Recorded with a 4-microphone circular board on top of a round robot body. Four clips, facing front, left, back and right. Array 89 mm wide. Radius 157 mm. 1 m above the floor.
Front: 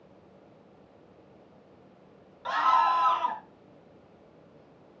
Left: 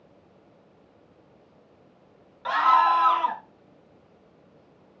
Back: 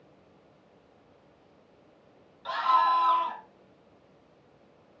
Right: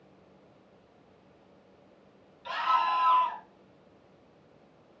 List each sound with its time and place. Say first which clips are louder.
2.5 s a scream: left 8 dB, front 1 dB; 75° left, 1.2 m